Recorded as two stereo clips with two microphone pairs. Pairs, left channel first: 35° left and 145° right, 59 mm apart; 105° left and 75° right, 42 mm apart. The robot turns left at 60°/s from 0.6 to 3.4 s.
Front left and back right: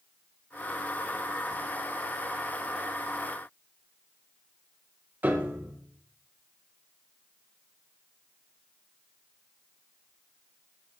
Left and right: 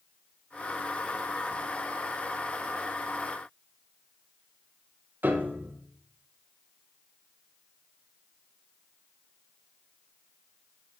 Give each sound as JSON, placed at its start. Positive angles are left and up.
{"t": 5.2, "sound": "a piano", "azimuth_deg": -90, "distance_m": 0.9}